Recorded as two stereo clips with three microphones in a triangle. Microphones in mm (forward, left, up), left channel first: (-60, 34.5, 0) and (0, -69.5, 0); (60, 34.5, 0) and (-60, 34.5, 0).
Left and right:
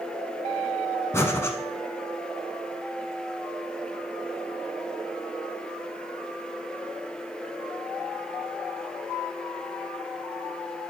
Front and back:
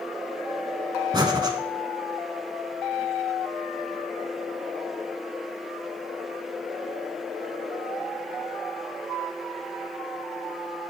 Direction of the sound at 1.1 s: 170° left.